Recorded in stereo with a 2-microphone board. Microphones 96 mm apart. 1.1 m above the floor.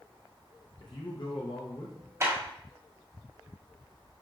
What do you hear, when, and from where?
0.8 s a man speaking: 55° left (ahead or behind), 0.7 m
2.2 s a clap: 30° right (ahead or behind), 2.5 m